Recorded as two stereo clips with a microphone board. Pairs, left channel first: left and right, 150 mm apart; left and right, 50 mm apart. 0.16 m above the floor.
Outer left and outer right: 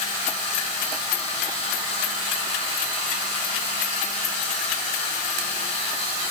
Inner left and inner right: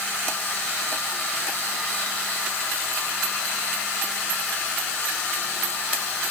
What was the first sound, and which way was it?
Only background noise.